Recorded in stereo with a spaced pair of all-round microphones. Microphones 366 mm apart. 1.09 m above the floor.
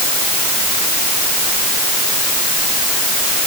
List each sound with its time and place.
Only background noise.